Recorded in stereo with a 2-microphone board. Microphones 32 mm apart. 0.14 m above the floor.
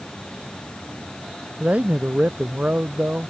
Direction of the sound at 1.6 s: 50° right (ahead or behind).